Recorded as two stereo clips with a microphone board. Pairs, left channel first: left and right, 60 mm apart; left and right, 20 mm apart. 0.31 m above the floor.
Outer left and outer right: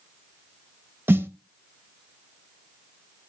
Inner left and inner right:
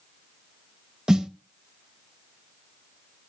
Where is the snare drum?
35° right (ahead or behind), 1.1 m.